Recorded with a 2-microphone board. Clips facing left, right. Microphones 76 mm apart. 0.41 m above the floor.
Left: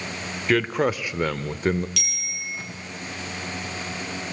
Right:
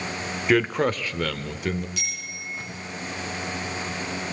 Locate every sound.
0.5 s a man speaking: 5° right (ahead or behind), 1.0 m; by 1.9 s 40° left (ahead or behind), 1.0 m
2.0 s a bicycle bell: 85° left, 6 m